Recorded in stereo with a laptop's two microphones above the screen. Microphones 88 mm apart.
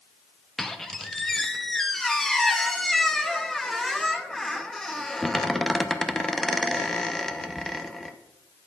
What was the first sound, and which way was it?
A squeak, 5° left (ahead or behind).